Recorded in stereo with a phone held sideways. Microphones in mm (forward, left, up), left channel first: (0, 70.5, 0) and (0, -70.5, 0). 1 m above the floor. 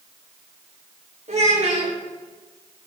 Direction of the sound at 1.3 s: 50° right (ahead or behind).